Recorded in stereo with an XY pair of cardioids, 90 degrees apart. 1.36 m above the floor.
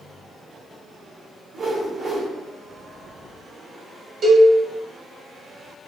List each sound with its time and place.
1.5 s a whoosh: 50° right, 1.8 m
4.2 s a cowbell: 50° right, 1.8 m